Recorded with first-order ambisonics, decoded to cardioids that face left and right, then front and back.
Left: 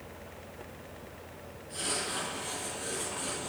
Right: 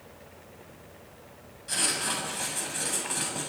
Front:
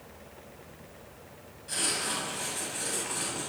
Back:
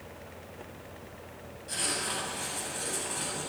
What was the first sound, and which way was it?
Writing, 90° right.